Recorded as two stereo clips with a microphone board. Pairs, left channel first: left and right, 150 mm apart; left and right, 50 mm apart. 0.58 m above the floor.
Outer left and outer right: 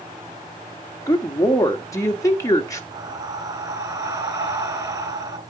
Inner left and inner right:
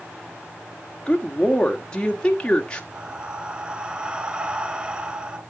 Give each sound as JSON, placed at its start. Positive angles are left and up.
{"t": 1.1, "sound": "a woman speaking", "side_deg": 20, "distance_m": 1.5}
{"t": 2.9, "sound": "breathing", "side_deg": -25, "distance_m": 1.6}